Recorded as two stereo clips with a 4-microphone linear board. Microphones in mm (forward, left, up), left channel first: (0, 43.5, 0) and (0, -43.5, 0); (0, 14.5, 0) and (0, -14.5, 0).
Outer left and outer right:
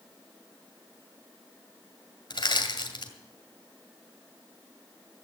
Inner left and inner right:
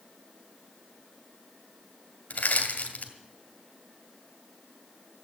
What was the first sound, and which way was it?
Crushing, 60° left (ahead or behind).